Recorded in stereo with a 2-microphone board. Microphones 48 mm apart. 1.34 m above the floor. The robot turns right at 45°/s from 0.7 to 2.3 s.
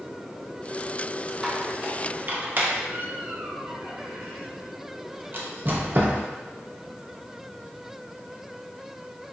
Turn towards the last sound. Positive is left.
turn(degrees=-40)  # may be behind; listen again after turning